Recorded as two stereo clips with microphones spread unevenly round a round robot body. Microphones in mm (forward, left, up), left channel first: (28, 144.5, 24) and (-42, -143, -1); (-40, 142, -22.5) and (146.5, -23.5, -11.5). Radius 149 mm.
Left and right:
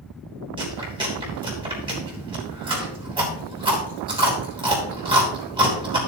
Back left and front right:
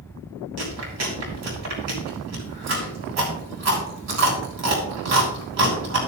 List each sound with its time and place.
0.6 s chewing: 35° right, 3 m